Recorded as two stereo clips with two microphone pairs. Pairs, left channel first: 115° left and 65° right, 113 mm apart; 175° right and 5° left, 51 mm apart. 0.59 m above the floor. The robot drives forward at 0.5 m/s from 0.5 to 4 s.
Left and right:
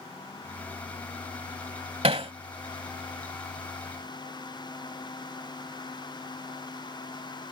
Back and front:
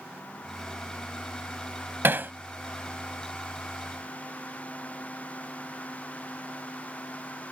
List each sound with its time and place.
2.0 s hammering: 35° right; by 2.3 s 40° right